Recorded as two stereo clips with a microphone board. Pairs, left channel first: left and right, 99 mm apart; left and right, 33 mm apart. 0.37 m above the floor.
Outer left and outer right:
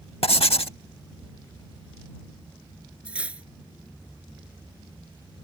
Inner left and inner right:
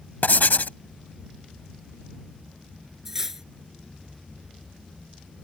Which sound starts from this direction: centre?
Cutlery clinking, at 3.0 s.